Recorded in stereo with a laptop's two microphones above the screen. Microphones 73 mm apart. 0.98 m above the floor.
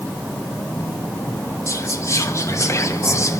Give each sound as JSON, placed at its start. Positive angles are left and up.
{"t": 1.7, "sound": "whispering", "side_deg": 40, "distance_m": 0.5}